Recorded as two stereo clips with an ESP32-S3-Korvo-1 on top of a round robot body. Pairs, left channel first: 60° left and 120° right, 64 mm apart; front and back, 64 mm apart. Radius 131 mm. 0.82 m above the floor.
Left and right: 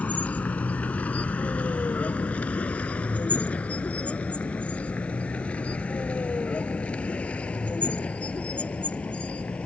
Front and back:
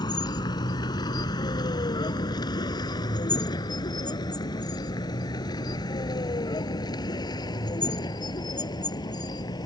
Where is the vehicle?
10° right; by 9.7 s 15° right.